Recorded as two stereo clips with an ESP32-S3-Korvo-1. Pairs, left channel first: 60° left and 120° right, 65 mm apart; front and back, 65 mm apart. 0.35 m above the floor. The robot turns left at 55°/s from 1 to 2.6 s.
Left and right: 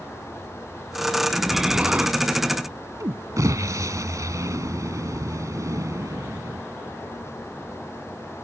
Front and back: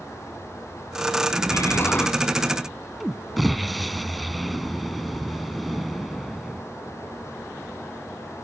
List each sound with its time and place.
1.5 s an explosion: 30° right; by 6.6 s 90° right